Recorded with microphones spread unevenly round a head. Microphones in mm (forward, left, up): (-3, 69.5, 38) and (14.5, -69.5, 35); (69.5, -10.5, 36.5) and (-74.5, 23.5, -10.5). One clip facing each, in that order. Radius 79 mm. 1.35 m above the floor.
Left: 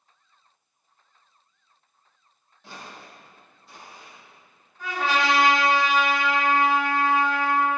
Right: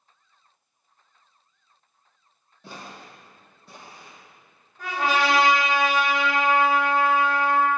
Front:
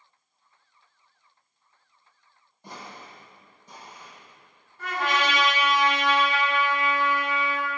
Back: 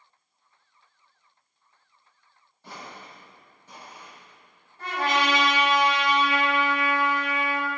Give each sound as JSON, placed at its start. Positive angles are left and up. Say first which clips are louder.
{"t": 2.6, "sound": "footsteps", "louder": "right 2 dB, even", "azimuth_deg": -75, "distance_m": 2.5}
{"t": 4.8, "sound": "a trumpet", "louder": "right 1 dB, back 1 dB", "azimuth_deg": -120, "distance_m": 3.5}